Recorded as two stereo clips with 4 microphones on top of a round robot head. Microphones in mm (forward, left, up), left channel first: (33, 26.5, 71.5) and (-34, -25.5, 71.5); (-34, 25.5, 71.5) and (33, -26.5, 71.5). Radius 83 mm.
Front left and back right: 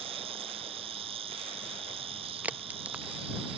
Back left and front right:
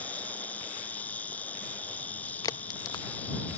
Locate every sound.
0.0 s an insect: 145° right
2.4 s a crack: 155° left